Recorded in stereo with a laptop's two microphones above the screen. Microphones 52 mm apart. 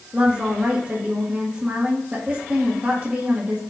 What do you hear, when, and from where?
0.1 s a woman speaking: 30° right (ahead or behind), 1.6 m